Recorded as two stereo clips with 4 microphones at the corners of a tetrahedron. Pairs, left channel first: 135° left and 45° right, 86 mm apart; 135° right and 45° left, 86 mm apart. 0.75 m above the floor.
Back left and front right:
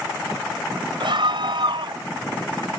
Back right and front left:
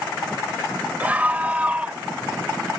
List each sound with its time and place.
1.0 s a scream: 30° right